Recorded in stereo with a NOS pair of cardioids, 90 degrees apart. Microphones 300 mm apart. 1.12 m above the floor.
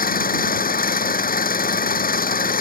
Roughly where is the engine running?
Ahead left.